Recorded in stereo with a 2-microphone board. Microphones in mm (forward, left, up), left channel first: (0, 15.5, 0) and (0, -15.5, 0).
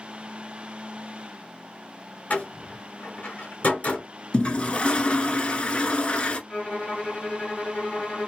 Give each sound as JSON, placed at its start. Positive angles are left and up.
{"t": 2.3, "sound": "a door slam", "side_deg": 60, "distance_m": 1.6}
{"t": 4.3, "sound": "a toilet flushing", "side_deg": 40, "distance_m": 0.8}
{"t": 6.5, "sound": "a violin", "side_deg": 40, "distance_m": 2.0}